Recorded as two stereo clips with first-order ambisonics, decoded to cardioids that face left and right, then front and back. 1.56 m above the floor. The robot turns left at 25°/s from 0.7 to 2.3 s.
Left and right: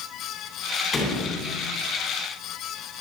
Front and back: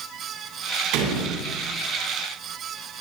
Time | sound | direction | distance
0.9 | a door slam | 165° left | 10 m